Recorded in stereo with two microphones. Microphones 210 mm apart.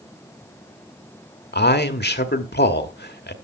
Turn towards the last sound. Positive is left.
turn(degrees=50)  # may be behind; listen again after turning